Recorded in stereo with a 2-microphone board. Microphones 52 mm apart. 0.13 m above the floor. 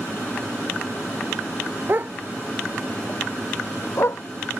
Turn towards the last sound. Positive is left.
turn(degrees=55)  # may be behind; listen again after turning